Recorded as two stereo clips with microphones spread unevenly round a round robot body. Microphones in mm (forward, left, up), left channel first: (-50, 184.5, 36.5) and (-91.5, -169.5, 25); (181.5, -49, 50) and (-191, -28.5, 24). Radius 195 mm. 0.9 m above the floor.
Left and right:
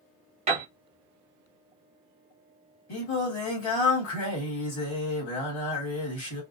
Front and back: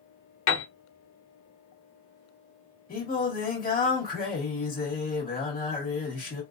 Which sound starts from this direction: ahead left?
Singing, at 2.9 s.